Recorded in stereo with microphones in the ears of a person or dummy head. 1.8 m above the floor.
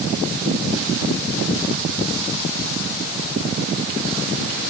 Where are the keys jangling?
No keys jangling in this recording.